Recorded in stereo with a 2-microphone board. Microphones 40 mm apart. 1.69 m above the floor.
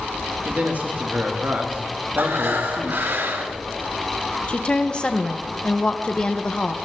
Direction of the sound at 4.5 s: 30° left (ahead or behind).